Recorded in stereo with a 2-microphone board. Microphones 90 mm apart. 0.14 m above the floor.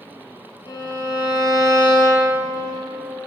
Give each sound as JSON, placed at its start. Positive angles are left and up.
{"t": 0.7, "sound": "a violin", "side_deg": 60, "distance_m": 3.0}